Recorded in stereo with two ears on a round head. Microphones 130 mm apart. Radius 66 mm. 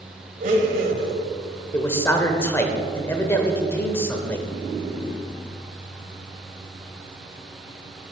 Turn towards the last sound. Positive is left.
turn(degrees=15)  # may be behind; listen again after turning